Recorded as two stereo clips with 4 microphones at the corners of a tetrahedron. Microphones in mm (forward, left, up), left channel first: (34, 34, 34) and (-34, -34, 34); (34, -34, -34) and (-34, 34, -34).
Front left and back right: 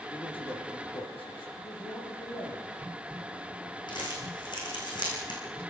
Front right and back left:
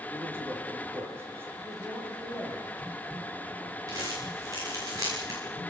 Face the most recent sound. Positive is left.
turn(degrees=85)